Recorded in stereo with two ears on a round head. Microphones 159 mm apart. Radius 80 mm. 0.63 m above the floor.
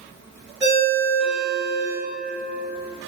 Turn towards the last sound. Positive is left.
turn(degrees=-5)  # may be behind; listen again after turning